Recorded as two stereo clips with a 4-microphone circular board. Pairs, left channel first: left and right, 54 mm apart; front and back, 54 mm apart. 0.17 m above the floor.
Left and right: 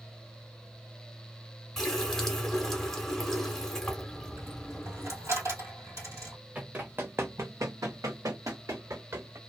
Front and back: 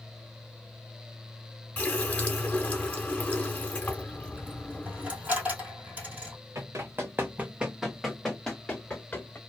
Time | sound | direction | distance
1.8 | a running tap | 20° left | 0.9 m
4.1 | a dropped coin | 120° right | 1.6 m
6.5 | running footsteps | 155° right | 0.8 m